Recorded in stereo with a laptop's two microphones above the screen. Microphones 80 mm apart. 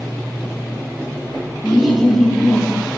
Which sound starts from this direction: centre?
Laughter, at 1.6 s.